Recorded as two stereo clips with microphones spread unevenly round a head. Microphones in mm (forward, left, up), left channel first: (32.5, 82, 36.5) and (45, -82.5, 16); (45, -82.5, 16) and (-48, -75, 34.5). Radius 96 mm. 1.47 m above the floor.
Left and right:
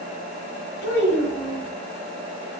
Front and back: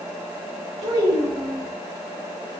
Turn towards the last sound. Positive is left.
turn(degrees=170)